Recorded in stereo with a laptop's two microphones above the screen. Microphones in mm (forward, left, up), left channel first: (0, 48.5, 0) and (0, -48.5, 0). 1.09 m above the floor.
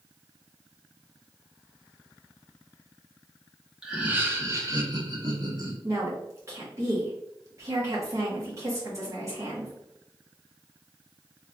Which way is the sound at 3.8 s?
10° right (ahead or behind).